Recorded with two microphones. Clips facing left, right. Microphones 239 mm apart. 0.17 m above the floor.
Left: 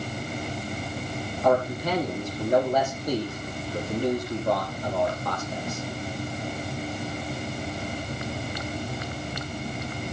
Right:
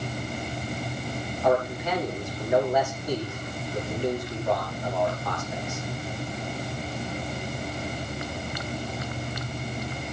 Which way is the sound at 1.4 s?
40° left (ahead or behind).